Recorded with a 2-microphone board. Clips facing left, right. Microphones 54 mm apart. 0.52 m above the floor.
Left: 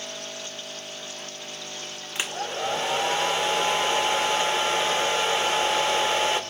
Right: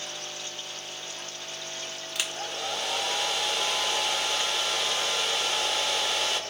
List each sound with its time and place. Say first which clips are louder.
2.1 s a hair dryer: left 5 dB; 25° left (ahead or behind), 0.5 m